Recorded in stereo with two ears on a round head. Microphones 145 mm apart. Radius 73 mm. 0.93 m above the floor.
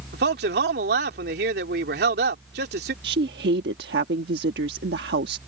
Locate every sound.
0.1 s a man speaking: 70° right (ahead or behind)
3.0 s a woman speaking: 70° right (ahead or behind)